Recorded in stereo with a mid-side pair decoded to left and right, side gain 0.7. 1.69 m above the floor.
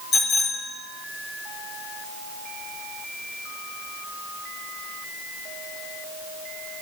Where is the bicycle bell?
40° left, 4 m.